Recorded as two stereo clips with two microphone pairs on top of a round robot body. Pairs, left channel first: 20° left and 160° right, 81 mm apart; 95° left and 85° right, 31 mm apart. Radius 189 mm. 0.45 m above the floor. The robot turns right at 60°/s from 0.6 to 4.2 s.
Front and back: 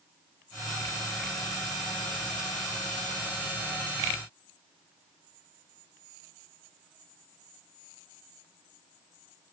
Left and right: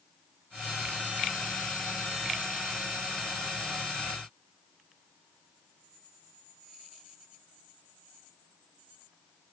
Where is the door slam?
I don't hear a door slam.